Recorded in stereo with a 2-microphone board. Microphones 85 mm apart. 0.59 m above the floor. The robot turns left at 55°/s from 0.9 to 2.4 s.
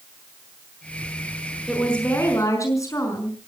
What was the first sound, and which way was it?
A woman speaking, straight behind.